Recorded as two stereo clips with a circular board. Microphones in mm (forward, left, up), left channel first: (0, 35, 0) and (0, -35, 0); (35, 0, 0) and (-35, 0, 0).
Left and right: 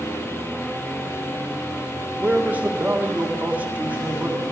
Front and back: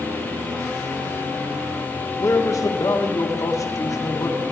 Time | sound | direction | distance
2.2 | a man speaking | 25° right | 1.4 m